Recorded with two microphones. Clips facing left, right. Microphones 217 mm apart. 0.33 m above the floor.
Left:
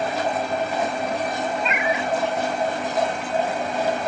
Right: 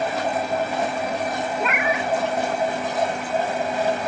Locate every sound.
1.6 s a cat meowing: 85° right